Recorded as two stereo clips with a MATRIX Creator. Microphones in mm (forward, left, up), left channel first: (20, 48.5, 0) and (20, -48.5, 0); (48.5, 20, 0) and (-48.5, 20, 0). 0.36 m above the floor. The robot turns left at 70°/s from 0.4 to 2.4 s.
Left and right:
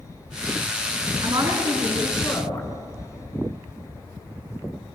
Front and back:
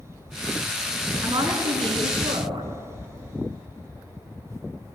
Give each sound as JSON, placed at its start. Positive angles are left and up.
{"t": 1.2, "sound": "a woman speaking", "azimuth_deg": -130, "distance_m": 4.5}